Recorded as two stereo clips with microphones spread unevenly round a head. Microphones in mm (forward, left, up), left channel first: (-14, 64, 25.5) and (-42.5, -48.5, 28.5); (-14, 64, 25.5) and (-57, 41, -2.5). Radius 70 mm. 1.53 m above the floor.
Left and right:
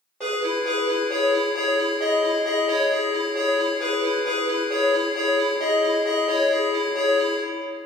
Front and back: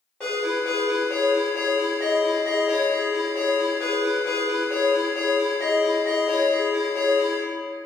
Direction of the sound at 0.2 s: 10° right.